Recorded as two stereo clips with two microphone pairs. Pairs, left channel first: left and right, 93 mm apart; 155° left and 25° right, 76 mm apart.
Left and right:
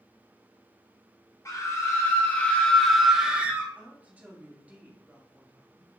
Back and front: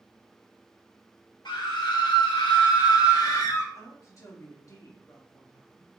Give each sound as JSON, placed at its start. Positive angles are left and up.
{"t": 1.4, "sound": "a scream", "azimuth_deg": 145, "distance_m": 1.9}
{"t": 3.8, "sound": "a woman speaking", "azimuth_deg": -160, "distance_m": 1.9}